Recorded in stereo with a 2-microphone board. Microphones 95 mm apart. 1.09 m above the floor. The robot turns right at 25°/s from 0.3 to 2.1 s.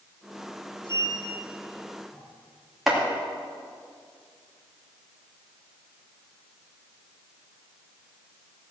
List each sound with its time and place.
0.8 s a sliding door: 55° left (ahead or behind), 6 m; by 2.2 s 25° left (ahead or behind), 6 m
2.9 s chopping: 5° right (ahead or behind), 2.5 m